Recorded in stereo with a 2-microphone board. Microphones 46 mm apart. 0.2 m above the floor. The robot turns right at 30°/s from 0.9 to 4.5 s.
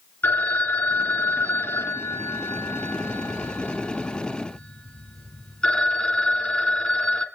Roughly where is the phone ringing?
Ahead left.